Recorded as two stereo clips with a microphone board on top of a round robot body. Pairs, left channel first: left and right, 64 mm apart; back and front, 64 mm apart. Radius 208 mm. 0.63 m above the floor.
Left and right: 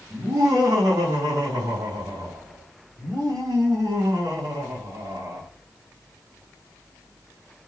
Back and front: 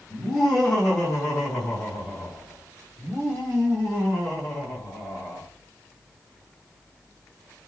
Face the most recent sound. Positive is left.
turn(degrees=-120)